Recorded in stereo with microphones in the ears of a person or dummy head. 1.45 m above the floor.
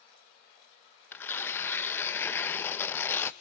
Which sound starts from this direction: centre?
Tearing paper, at 1.1 s.